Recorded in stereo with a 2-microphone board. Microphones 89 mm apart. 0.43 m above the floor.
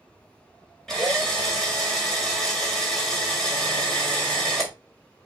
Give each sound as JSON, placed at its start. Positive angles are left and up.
{"t": 0.9, "sound": "a drill", "side_deg": 5, "distance_m": 1.8}